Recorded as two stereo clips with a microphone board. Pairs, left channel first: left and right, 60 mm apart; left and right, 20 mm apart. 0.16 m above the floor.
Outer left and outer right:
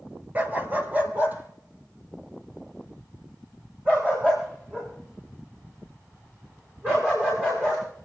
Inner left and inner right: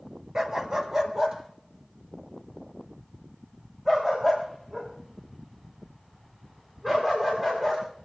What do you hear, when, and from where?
0.3 s a dog barking: 25° right (ahead or behind), 1.1 m